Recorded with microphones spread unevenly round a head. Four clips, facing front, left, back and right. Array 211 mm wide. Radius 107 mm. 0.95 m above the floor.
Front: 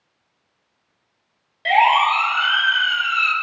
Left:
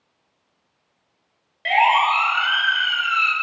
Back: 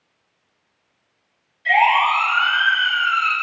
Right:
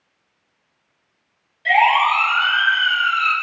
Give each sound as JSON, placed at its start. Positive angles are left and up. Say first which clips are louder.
{"t": 1.6, "sound": "a siren", "louder": "right 2 dB, front 1 dB", "azimuth_deg": 20, "distance_m": 3.5}